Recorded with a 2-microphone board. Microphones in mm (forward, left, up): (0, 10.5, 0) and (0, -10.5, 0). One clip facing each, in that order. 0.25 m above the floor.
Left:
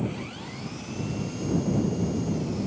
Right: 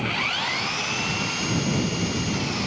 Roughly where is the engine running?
Right.